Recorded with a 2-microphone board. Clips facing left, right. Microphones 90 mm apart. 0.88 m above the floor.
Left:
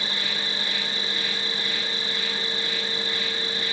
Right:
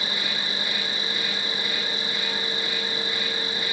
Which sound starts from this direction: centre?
An insect, at 0.0 s.